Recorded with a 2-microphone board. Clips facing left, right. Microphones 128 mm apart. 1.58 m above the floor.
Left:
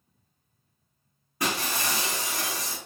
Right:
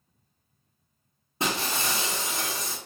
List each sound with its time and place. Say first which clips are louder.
1.4 s breaking glass: even; 25° right (ahead or behind), 0.8 m